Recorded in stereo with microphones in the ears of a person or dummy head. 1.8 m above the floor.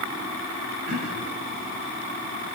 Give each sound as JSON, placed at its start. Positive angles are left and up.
{"t": 0.9, "sound": "throat clearing", "side_deg": -70, "distance_m": 8.0}